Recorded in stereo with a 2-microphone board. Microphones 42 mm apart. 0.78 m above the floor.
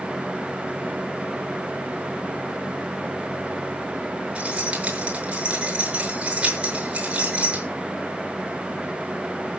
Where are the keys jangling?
30° right (ahead or behind), 7 m.